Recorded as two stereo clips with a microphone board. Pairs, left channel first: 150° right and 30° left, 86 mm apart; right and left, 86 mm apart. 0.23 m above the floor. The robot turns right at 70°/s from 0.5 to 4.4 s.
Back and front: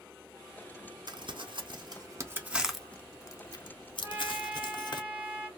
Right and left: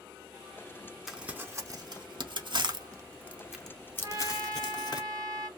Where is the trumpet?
70° left, 1.2 m; by 5.5 s 95° left, 1.2 m.